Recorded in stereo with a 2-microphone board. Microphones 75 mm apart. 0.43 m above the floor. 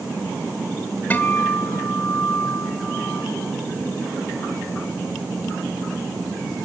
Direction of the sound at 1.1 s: 25° left (ahead or behind).